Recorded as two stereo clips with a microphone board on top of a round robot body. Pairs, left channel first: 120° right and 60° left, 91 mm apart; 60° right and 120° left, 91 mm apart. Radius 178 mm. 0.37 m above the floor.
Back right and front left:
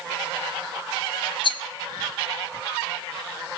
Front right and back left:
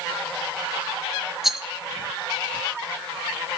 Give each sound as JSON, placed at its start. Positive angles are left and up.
{"t": 1.4, "sound": "a rattle", "azimuth_deg": -155, "distance_m": 0.6}